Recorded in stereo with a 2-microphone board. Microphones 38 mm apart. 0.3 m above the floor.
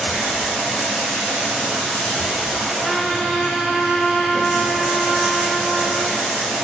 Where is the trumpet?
10° right (ahead or behind), 3 m.